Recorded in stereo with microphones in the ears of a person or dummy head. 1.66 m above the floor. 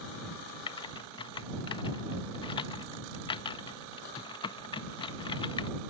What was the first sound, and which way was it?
Typing on a keyboard, 35° left (ahead or behind).